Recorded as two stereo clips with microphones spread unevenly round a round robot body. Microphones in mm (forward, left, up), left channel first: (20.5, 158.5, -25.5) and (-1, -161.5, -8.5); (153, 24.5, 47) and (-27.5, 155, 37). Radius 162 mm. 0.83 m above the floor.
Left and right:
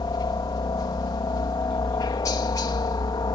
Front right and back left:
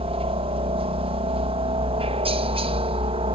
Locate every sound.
0.0 s a helicopter: 150° left